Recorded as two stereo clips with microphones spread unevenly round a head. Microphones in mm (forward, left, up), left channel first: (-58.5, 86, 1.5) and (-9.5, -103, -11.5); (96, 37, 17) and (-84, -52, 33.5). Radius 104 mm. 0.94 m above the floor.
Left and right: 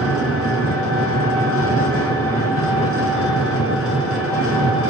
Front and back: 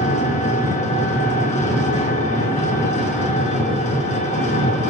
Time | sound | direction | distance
0.0 | an engine running | 85° left | 4 m